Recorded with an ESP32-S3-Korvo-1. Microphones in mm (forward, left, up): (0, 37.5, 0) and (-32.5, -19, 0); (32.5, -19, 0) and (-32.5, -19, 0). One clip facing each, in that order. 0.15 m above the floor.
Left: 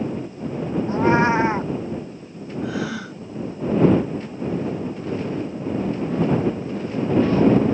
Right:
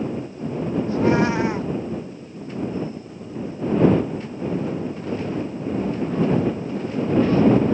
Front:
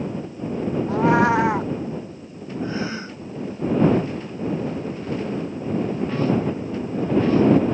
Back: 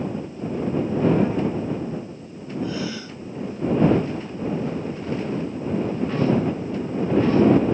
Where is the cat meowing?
Straight ahead.